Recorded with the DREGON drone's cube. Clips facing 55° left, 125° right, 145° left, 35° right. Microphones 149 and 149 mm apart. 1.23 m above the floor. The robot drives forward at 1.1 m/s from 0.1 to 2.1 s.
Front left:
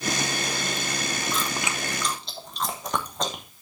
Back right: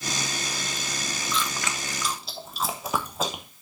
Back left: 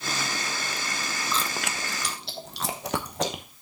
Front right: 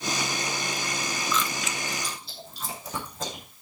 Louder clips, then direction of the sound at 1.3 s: Front left 1 dB, even; 85° left.